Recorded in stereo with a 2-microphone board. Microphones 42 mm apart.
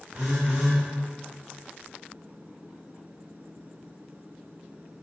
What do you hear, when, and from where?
0.1 s a phone buzzing: 40° right (ahead or behind), 1.6 m